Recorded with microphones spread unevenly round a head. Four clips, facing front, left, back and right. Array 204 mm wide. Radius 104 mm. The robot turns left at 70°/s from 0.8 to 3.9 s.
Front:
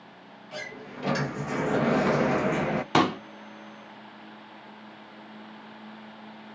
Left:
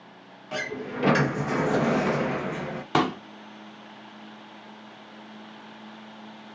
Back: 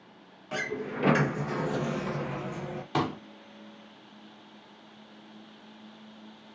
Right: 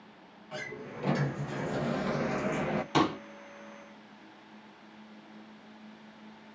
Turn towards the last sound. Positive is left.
turn(degrees=-25)